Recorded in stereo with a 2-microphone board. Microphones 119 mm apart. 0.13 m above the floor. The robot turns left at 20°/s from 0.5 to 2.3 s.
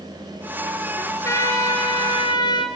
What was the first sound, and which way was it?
A trumpet, 20° left (ahead or behind).